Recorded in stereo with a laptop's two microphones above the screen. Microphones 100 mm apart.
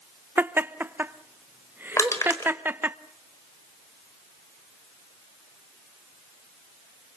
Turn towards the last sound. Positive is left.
turn(degrees=30)  # may be behind; listen again after turning